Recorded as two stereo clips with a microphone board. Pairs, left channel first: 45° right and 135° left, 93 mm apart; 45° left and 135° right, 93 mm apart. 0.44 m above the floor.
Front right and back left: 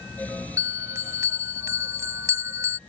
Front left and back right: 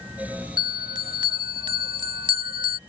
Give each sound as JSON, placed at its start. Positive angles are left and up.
{"t": 0.6, "sound": "a bell", "azimuth_deg": -165}